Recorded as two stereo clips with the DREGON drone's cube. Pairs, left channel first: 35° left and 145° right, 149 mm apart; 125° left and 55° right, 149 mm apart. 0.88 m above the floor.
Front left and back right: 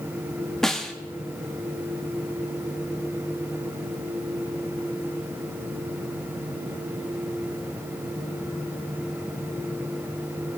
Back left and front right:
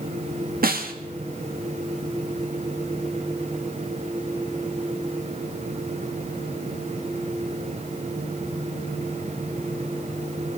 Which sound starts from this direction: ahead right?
A snare drum, at 0.6 s.